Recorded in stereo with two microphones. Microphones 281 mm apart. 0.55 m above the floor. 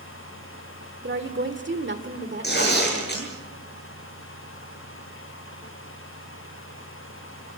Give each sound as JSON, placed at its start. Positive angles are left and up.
{"t": 1.0, "sound": "a woman speaking", "side_deg": -40, "distance_m": 1.8}
{"t": 2.4, "sound": "tearing paper", "side_deg": 35, "distance_m": 9.5}